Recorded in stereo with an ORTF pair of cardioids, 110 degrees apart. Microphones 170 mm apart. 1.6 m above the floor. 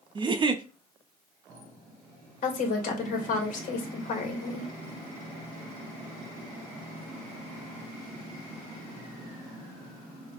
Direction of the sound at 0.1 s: 30° right.